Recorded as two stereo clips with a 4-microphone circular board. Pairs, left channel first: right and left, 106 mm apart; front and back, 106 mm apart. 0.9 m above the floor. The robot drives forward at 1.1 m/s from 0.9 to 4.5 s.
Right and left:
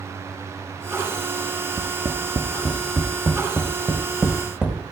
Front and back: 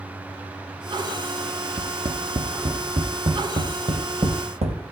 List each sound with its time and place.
1.8 s tapping: 150° left, 1.1 m; by 4.8 s 175° left, 4 m